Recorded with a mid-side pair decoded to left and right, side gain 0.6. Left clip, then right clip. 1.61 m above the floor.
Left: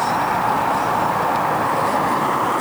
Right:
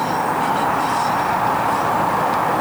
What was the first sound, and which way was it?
Only background noise.